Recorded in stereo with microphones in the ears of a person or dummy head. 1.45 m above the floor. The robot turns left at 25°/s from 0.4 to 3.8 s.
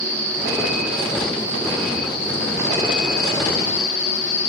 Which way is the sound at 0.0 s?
170° right.